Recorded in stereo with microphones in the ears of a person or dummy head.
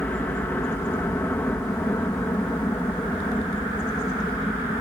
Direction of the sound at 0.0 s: 10° left (ahead or behind).